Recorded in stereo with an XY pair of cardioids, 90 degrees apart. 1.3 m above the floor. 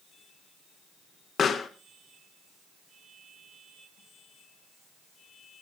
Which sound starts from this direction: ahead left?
A pop, at 1.4 s.